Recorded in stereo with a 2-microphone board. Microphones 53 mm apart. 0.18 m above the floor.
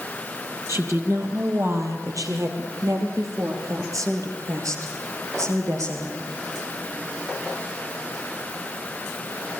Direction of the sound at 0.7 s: 50° right (ahead or behind).